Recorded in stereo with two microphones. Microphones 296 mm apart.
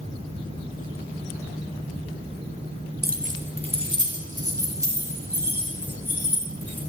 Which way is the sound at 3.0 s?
35° right (ahead or behind).